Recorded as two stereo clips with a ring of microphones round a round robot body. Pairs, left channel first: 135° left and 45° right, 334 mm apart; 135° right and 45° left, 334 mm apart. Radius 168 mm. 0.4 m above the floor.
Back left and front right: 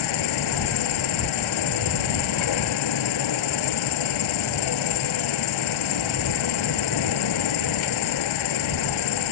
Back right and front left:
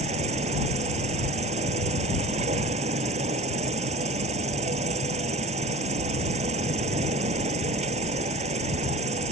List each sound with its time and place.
0.0 s an insect: 115° left